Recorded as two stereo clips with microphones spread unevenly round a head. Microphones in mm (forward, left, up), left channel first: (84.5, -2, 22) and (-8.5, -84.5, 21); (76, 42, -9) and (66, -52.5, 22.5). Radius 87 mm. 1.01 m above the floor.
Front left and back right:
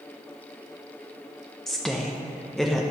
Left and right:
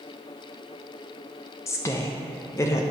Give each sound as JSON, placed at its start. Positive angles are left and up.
{"t": 1.7, "sound": "a woman speaking", "azimuth_deg": 130, "distance_m": 0.6}